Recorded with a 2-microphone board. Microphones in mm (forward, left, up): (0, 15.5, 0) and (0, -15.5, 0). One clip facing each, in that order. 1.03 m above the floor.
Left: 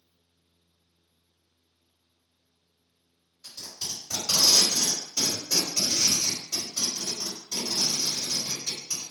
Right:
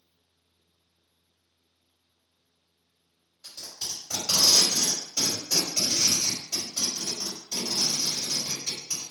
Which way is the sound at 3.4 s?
15° right (ahead or behind).